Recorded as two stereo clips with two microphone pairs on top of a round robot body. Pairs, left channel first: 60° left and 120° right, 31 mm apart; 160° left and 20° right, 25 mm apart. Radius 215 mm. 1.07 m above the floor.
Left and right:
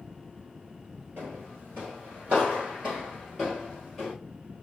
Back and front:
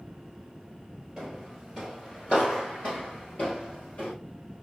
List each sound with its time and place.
1.2 s footsteps: 115° right, 1.5 m; by 4.1 s 145° left, 2 m